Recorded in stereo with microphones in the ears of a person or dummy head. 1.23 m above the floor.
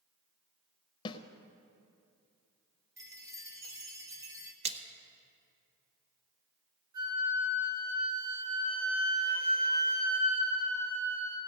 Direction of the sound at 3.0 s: 20° right (ahead or behind).